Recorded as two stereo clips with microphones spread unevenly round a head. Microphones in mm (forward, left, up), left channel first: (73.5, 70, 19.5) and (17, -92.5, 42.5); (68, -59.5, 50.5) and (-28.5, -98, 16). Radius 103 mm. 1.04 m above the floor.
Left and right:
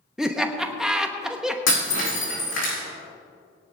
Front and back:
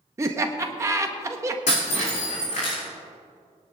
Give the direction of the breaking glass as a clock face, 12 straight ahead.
10 o'clock.